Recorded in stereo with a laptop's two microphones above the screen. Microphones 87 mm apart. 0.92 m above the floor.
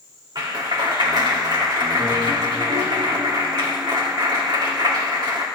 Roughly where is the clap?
Right.